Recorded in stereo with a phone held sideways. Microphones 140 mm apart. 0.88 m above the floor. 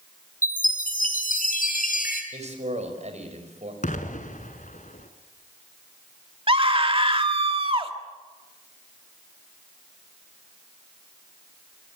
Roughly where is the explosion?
Left.